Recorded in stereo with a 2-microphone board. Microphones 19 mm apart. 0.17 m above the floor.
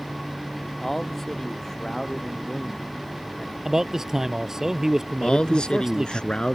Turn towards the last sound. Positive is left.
turn(degrees=55)  # may be behind; listen again after turning